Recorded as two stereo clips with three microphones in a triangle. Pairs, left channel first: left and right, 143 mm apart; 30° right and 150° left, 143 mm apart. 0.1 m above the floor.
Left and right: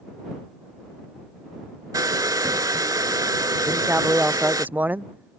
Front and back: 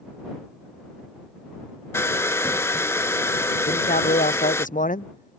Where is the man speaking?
10° right.